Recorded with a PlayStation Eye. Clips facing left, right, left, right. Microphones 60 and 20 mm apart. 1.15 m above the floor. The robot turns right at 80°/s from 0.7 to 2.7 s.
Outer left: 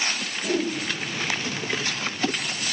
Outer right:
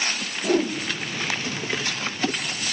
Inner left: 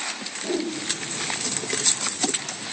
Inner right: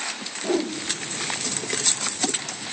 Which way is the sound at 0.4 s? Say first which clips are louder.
Outer right 4 dB, inner right 3 dB; 40° right (ahead or behind).